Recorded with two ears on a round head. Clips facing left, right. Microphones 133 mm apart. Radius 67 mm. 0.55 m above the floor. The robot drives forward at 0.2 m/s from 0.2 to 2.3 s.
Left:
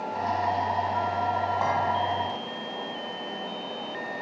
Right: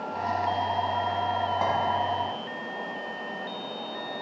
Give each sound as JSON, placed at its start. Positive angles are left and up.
{"t": 1.6, "sound": "a clink", "side_deg": -20, "distance_m": 3.0}